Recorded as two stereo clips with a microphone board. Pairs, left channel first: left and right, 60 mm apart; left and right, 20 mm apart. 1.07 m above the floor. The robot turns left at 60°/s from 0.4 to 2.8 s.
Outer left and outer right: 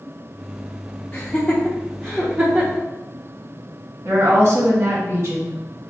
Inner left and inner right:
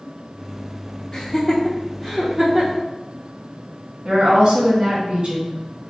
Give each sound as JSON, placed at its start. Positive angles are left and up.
{"t": 1.1, "sound": "laughter", "side_deg": 45, "distance_m": 0.9}
{"t": 4.0, "sound": "a woman speaking", "side_deg": -45, "distance_m": 1.6}